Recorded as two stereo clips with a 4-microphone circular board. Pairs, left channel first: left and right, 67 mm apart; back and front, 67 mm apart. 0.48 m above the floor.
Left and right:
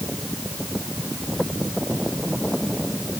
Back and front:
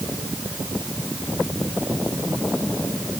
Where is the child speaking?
I don't hear a child speaking.